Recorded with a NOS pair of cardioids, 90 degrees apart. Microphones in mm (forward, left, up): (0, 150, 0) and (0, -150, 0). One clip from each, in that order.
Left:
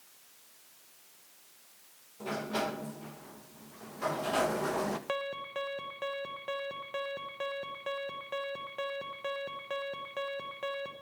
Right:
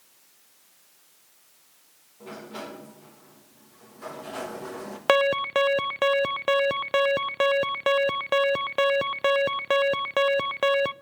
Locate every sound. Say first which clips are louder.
2.2 s a sliding door: left 5 dB; 35° left, 1.4 m
5.1 s an alarm: right 15 dB; 70° right, 0.5 m